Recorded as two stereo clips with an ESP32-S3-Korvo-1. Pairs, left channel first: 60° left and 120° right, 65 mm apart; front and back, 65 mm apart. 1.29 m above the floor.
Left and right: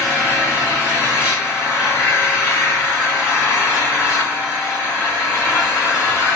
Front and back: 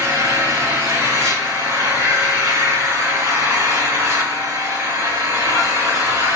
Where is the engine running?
165° left, 2.5 m.